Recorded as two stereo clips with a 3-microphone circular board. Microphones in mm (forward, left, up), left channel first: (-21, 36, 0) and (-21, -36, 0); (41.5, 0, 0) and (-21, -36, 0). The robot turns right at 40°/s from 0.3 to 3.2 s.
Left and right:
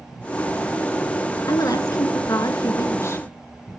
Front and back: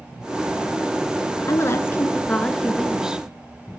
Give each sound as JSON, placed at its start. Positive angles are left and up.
{"t": 1.5, "sound": "a woman speaking", "azimuth_deg": 65, "distance_m": 2.5}